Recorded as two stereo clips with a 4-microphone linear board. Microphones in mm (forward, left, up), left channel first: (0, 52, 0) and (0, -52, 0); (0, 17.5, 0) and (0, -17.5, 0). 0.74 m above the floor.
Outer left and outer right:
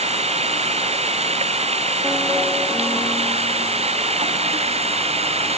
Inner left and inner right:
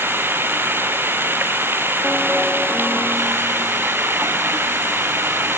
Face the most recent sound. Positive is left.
turn(degrees=-75)  # may be behind; listen again after turning